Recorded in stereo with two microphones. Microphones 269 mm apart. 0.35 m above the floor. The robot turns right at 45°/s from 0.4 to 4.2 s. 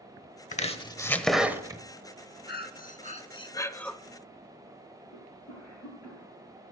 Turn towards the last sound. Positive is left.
turn(degrees=65)  # may be behind; listen again after turning